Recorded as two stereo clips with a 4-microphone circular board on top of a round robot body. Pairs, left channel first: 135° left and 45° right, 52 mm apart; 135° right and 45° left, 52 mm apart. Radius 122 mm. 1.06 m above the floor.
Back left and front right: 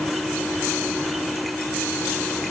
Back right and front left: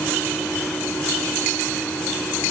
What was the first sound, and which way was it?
Only background noise.